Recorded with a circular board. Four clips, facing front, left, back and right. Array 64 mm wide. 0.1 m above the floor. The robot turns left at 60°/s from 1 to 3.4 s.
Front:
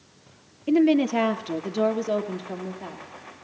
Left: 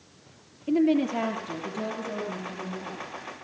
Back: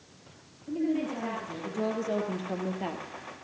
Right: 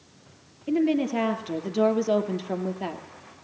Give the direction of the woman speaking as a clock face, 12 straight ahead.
12 o'clock.